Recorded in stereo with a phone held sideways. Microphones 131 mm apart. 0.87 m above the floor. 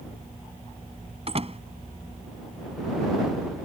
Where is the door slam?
45° right (ahead or behind).